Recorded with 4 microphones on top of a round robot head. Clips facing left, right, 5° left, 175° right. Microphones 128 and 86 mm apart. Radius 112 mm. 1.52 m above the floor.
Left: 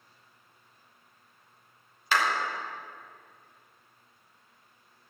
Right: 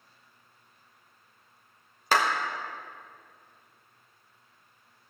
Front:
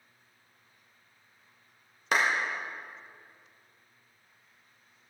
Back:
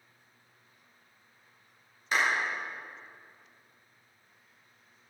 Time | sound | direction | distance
2.1 | a clap | 40° right | 1.5 m